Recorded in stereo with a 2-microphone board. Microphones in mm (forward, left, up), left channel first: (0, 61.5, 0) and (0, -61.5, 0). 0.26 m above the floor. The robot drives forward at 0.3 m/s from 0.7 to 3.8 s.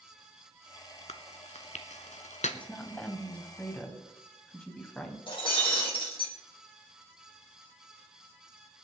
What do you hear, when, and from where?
1.1 s chewing: 60° left (ahead or behind), 1.2 m; by 2.6 s 75° left (ahead or behind), 1.1 m
2.5 s a woman speaking: 10° left (ahead or behind), 1.8 m
5.3 s breaking glass: 45° left (ahead or behind), 5 m